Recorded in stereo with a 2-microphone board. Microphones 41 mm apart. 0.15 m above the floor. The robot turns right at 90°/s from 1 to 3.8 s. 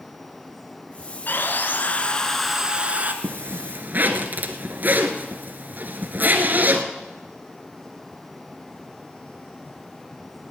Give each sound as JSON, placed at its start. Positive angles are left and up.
{"t": 1.3, "sound": "sawing", "azimuth_deg": 75, "distance_m": 1.3}
{"t": 3.2, "sound": "a zipper", "azimuth_deg": -105, "distance_m": 1.3}